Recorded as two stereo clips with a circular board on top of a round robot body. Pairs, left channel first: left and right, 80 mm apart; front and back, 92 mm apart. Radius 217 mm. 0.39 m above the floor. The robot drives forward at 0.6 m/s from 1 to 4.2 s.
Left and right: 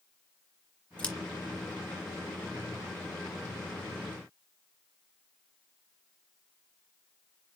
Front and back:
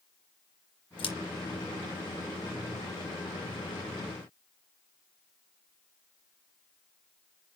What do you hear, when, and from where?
1.0 s scissors: 15° left, 3 m